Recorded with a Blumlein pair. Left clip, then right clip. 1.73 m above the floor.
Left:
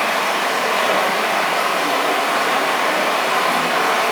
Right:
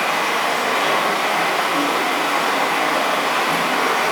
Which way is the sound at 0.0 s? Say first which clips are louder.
Left 1 dB; 55° left.